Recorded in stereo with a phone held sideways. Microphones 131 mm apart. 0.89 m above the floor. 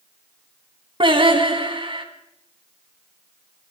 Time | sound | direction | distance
1.0 | singing | 45° right (ahead or behind) | 1.5 m